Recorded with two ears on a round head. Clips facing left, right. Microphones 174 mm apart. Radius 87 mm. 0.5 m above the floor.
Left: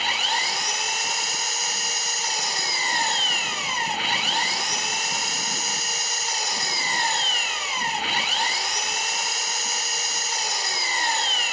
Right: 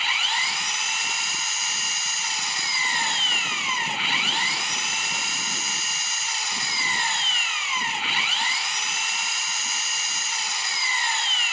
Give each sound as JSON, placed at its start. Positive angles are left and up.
{"t": 0.0, "sound": "an engine running", "side_deg": 35, "distance_m": 0.8}